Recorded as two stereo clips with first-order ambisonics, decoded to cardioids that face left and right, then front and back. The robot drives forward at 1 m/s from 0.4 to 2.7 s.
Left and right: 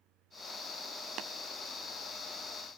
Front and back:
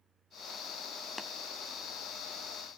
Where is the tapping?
70° right, 0.5 m; by 1.3 s 90° right, 0.5 m.